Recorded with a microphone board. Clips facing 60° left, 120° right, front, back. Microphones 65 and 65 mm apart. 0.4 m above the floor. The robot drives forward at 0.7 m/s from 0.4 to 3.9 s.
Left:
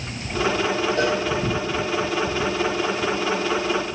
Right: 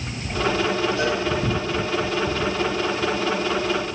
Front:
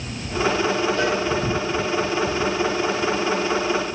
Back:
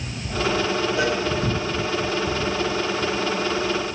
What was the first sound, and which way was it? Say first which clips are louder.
A cowbell: left 2 dB, front 1 dB; 100° left.